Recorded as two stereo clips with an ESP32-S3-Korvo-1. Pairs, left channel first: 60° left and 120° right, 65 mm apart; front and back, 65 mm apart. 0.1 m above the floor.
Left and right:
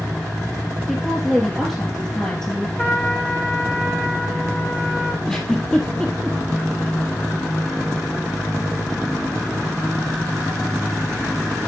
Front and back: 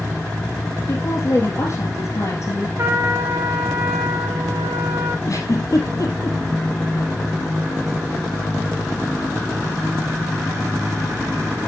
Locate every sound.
0.9 s a woman speaking: 20° right, 2.5 m
2.8 s a trumpet: 125° left, 2.5 m
5.3 s a giggle: 15° right, 2.5 m